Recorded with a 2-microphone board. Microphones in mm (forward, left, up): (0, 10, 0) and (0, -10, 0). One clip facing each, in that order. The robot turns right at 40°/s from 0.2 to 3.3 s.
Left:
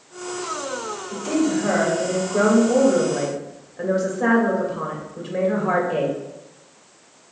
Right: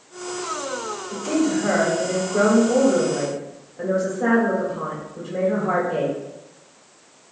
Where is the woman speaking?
10° right, 3 m; by 6.2 s 75° left, 3 m.